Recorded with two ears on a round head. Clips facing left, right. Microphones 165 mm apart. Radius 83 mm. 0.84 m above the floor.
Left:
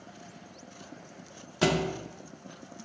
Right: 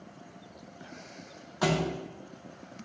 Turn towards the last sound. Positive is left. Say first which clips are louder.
# left 1 dB
turn(degrees=30)  # may be behind; listen again after turning